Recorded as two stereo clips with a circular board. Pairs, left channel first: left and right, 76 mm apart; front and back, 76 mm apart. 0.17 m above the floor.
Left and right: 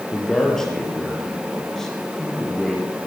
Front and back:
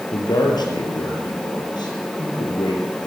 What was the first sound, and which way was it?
A man speaking, 10° left.